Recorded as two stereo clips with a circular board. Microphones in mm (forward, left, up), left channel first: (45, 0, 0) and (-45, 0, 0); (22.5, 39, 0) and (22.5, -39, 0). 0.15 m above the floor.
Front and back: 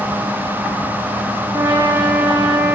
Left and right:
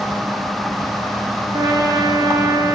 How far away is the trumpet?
About 6.5 m.